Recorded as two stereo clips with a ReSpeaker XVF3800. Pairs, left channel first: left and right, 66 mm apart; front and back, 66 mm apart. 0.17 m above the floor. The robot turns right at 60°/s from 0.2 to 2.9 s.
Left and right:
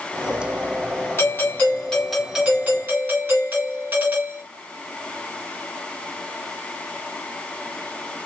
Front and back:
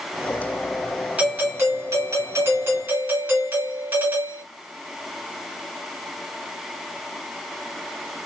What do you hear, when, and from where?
1.2 s a doorbell: 120° left, 1.9 m; by 4.4 s 140° right, 1.9 m